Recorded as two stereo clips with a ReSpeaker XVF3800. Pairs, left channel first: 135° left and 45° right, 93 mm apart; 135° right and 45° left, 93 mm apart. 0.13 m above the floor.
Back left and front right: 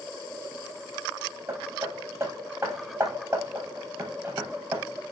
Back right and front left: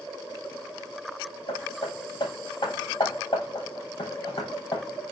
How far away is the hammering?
About 4 m.